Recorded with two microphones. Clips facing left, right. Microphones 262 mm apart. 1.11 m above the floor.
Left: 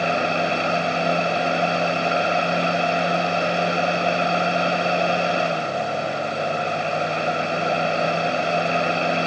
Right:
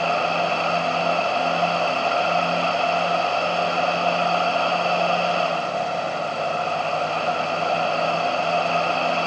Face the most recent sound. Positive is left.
No sound to turn to.